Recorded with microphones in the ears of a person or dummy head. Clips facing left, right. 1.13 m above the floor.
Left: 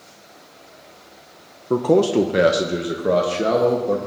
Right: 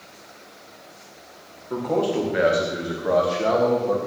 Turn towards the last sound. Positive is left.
turn(degrees=30)  # may be behind; listen again after turning